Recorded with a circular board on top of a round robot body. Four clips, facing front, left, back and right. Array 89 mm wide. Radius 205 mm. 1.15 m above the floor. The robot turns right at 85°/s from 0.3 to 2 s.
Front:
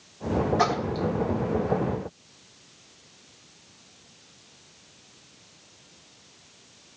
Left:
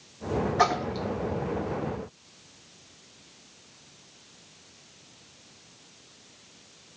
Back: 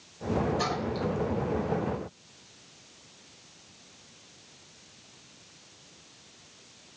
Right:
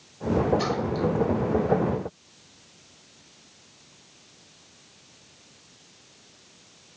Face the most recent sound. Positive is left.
turn(degrees=170)